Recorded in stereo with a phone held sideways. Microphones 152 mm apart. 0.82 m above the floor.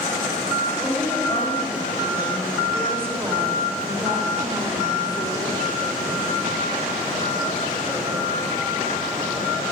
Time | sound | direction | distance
0.8 | a woman speaking | 5° right (ahead or behind) | 5 m